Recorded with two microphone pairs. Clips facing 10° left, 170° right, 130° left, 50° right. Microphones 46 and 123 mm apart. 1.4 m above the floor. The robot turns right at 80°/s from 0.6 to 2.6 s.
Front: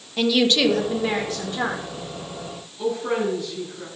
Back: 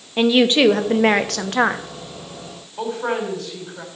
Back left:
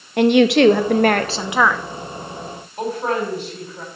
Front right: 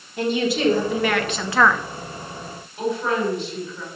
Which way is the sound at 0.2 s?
125° left.